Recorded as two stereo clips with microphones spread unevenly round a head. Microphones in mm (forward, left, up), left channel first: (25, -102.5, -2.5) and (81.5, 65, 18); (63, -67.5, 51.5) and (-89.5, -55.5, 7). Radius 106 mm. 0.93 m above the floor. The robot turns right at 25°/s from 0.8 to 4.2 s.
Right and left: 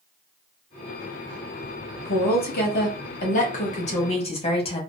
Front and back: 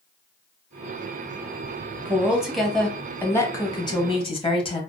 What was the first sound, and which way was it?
A woman speaking, 115° right.